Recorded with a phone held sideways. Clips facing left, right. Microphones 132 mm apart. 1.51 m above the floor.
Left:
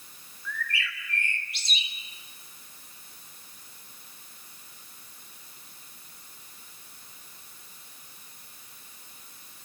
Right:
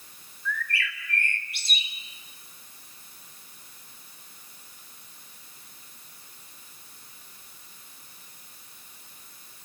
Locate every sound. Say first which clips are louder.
0.5 s a bird: right 3 dB; 55° right (ahead or behind), 3.5 m